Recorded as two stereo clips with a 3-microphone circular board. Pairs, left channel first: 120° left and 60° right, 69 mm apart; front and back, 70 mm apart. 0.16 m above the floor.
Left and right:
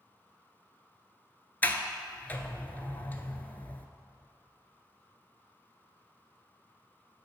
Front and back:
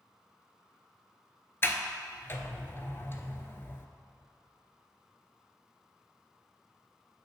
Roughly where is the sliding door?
Ahead left.